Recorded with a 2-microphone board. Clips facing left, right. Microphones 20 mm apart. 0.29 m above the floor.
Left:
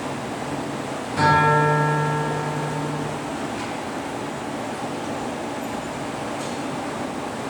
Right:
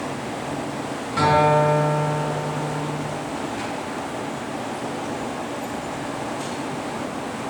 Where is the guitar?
25° right (ahead or behind), 1.9 m.